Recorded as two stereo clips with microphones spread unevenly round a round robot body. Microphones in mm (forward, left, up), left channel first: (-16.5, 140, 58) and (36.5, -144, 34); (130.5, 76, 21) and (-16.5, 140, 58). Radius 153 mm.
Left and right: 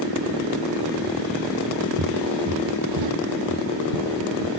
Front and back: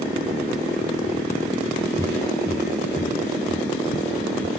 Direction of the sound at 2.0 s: 130° right.